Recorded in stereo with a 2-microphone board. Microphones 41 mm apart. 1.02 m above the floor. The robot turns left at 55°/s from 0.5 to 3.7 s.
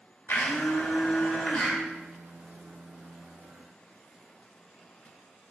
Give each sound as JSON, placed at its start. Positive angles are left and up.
{"t": 0.3, "sound": "a blender", "azimuth_deg": 95, "distance_m": 1.7}